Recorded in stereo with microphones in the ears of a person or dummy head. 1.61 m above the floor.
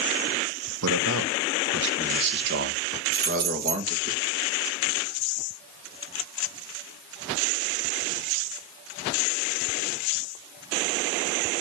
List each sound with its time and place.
0.8 s a man speaking: 80° right, 1.4 m; by 4.1 s 40° right (ahead or behind), 2 m
3.1 s keys jangling: 55° right (ahead or behind), 2.5 m